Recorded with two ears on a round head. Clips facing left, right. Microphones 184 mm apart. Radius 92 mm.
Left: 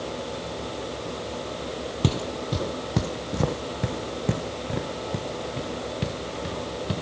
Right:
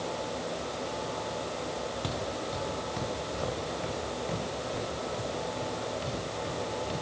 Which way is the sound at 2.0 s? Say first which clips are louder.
Left 6 dB; 60° left (ahead or behind).